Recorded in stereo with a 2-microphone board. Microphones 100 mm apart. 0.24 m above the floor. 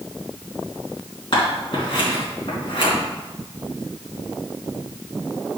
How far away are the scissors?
About 3 m.